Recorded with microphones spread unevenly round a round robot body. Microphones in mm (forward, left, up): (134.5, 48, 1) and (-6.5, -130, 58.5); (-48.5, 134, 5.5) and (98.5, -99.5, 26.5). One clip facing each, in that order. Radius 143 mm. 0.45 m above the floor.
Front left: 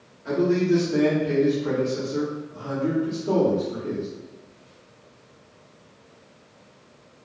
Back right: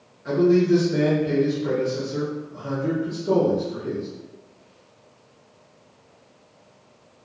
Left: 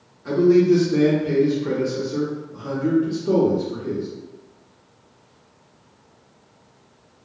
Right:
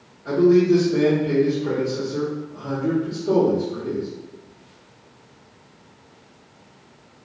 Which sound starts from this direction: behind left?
A man speaking, at 0.2 s.